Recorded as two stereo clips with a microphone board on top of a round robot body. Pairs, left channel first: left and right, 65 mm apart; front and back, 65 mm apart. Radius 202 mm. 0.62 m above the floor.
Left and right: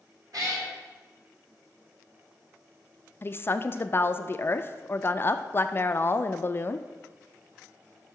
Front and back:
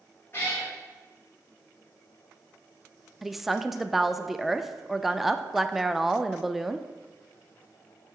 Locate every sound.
0.3 s a cat meowing: 55° right, 1.6 m
3.2 s a woman speaking: 95° left, 0.5 m